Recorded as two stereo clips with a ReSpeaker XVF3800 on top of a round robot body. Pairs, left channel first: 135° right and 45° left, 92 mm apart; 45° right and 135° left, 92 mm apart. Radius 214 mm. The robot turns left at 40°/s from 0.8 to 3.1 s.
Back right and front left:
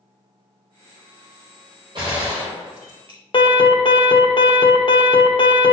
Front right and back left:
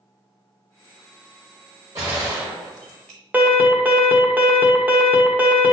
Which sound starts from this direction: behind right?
An alarm, at 3.3 s.